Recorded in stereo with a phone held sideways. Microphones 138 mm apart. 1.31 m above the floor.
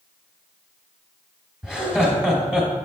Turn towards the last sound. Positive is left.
turn(degrees=-5)  # may be behind; listen again after turning